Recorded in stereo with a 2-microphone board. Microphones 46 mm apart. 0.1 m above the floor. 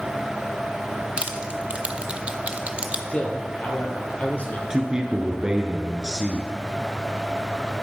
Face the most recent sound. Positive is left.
turn(degrees=-15)  # may be behind; listen again after turning